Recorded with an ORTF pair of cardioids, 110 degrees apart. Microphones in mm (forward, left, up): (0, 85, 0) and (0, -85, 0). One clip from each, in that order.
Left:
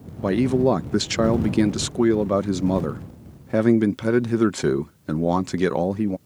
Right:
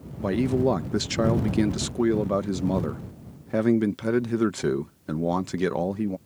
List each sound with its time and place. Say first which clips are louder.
0.2 s a man speaking: left 4 dB; 20° left